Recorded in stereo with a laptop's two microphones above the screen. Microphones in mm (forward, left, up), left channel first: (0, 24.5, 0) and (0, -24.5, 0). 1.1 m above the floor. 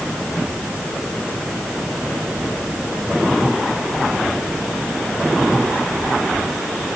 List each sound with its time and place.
Only background noise.